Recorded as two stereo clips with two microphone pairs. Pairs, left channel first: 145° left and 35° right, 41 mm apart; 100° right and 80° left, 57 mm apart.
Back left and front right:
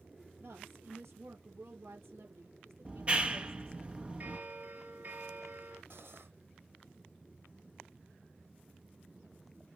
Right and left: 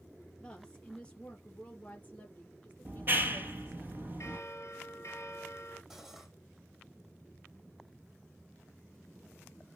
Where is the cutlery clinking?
5° right, 4 m.